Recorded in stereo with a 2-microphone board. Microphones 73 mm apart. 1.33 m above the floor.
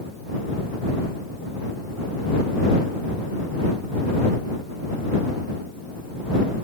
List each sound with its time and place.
Only background noise.